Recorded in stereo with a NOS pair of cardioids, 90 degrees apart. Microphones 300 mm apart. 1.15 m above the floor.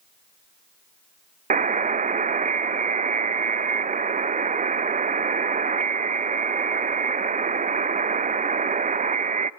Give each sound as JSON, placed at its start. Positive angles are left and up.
{"t": 1.5, "sound": "a buzzer", "azimuth_deg": -25, "distance_m": 0.8}